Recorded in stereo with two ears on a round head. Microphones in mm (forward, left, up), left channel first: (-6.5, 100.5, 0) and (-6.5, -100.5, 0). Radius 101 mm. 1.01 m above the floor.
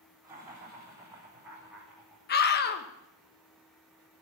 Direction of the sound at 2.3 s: 45° left (ahead or behind).